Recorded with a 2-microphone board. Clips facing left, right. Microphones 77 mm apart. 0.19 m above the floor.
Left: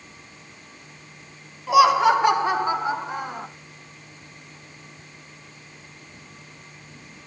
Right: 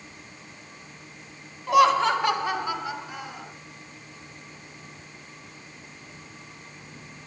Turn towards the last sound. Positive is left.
turn(degrees=50)  # may be behind; listen again after turning